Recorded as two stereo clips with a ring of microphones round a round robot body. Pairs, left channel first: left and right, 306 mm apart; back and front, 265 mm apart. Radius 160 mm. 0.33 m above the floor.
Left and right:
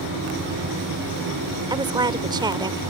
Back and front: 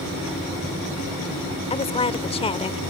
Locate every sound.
1.7 s a woman speaking: 145° right